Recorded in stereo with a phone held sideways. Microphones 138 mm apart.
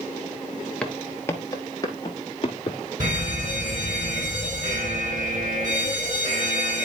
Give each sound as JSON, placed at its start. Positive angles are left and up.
{"t": 0.8, "sound": "footsteps", "side_deg": 5, "distance_m": 1.0}
{"t": 3.0, "sound": "a fire alarm", "side_deg": -65, "distance_m": 7.0}